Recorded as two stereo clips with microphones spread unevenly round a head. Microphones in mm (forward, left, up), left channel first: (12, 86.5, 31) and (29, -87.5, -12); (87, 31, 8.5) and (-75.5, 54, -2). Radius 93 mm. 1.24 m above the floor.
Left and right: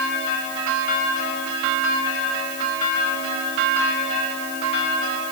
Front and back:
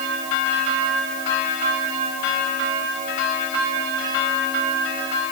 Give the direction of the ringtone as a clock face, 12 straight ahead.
I don't hear a ringtone.